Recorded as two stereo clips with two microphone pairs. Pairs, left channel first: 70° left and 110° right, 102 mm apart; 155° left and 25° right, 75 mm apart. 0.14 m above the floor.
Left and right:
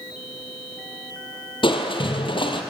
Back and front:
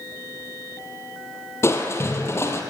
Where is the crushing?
105° left, 2 m.